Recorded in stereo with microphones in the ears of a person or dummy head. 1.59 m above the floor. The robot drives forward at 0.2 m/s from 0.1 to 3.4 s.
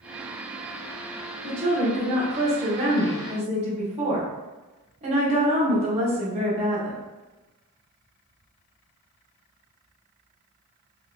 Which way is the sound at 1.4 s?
25° right (ahead or behind).